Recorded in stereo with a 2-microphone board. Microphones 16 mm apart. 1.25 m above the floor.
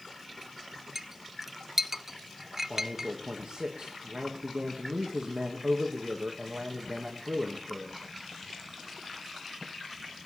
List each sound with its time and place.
0.9 s a clink: 25° right (ahead or behind), 0.5 m
2.7 s a man speaking: 60° right (ahead or behind), 1.9 m